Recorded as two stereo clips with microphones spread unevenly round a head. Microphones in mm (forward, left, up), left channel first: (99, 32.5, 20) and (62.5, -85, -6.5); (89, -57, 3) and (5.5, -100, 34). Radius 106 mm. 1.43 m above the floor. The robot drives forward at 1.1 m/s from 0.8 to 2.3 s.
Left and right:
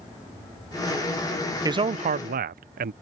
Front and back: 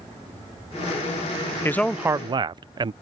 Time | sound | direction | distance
1.6 | a man speaking | 45° right | ?